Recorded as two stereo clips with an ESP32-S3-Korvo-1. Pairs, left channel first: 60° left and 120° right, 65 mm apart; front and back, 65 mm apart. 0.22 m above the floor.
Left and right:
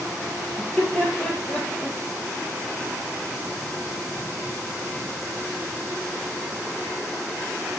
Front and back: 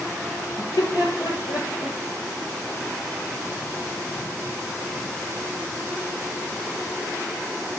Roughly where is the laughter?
Ahead.